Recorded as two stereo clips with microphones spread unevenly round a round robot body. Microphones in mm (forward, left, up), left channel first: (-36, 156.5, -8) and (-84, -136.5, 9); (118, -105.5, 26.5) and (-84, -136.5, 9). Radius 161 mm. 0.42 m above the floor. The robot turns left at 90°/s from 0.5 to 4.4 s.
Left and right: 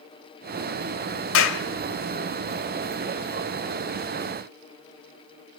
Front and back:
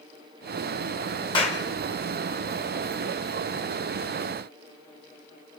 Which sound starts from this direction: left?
A clap, at 1.3 s.